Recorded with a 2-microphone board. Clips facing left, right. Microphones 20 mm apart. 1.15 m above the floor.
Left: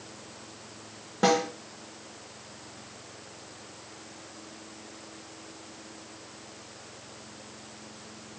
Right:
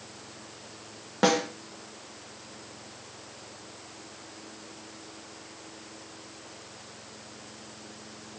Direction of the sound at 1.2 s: 30° right (ahead or behind).